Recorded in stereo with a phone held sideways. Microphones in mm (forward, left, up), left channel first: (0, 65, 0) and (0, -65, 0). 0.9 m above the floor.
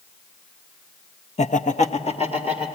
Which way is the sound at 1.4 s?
55° left (ahead or behind).